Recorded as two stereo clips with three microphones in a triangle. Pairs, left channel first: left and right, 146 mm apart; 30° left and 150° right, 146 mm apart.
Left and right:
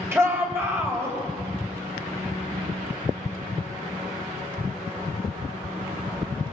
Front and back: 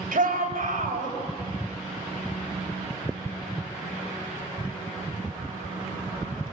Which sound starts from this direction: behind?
A shout, at 0.1 s.